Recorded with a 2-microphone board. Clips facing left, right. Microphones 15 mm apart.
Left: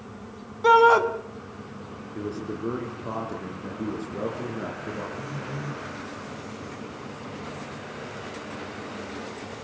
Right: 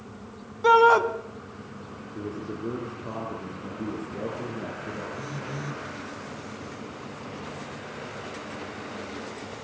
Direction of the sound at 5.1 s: 25° right (ahead or behind).